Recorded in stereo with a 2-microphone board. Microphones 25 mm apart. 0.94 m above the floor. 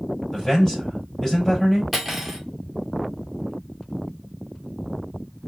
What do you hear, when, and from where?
0.3 s a man speaking: 20° left (ahead or behind), 4 m
1.9 s cutlery clinking: 5° right (ahead or behind), 1.5 m